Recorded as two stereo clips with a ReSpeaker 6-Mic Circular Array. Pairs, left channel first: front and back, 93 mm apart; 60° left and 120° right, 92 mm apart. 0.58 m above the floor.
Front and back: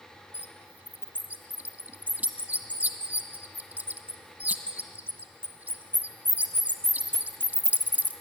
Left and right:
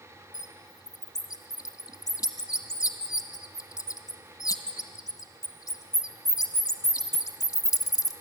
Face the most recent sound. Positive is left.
turn(degrees=110)